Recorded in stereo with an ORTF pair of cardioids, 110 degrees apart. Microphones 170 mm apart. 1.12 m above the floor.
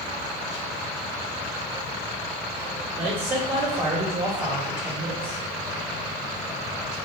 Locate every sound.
3.0 s a man speaking: 15° right, 1.8 m